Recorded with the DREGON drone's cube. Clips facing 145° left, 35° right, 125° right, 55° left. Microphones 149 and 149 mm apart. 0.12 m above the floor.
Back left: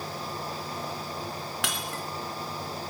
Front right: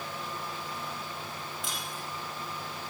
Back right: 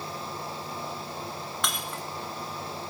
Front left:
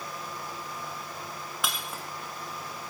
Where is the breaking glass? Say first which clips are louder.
Back left 5 dB, even; 140° left, 3.5 m.